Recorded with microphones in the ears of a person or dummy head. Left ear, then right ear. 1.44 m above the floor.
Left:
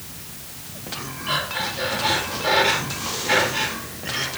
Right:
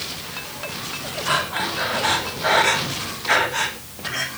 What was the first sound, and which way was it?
Breathing, 60° right (ahead or behind).